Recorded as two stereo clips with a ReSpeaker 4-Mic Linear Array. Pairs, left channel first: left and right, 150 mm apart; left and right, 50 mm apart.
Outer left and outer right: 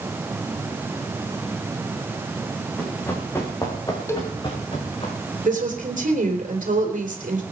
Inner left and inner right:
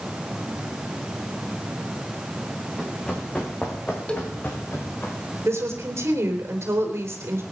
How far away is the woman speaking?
About 3.5 m.